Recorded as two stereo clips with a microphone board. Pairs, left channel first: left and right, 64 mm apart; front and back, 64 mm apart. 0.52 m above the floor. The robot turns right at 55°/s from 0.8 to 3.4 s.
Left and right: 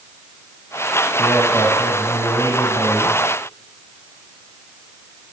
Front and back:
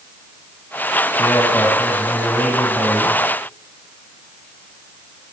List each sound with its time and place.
1.2 s a man speaking: 20° left, 4.5 m; by 3.2 s 130° left, 4.5 m